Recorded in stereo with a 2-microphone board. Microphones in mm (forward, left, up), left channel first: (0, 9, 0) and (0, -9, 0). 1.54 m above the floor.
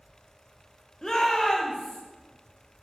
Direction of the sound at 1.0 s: 30° left (ahead or behind).